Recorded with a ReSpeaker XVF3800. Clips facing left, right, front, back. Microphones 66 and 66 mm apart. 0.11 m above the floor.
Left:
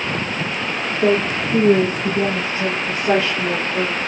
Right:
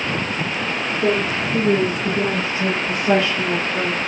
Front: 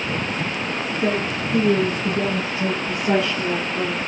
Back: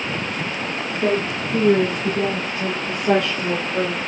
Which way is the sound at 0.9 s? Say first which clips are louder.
Left 3 dB, back 2 dB; 125° left.